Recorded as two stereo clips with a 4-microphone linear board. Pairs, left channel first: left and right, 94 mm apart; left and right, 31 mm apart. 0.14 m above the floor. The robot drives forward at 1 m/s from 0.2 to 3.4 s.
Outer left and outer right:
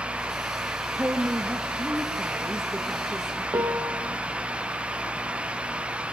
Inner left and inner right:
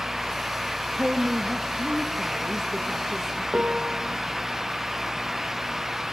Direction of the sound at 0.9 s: 30° right (ahead or behind).